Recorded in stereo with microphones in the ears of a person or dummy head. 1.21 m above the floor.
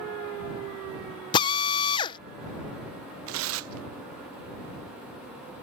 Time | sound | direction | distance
1.3 | a drill | 25° left (ahead or behind) | ?
3.3 | tearing paper | 65° right (ahead or behind) | ?